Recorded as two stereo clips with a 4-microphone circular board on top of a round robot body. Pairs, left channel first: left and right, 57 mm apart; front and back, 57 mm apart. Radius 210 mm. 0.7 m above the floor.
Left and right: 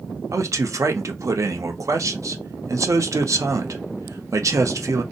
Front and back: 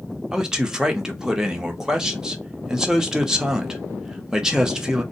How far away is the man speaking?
About 0.9 m.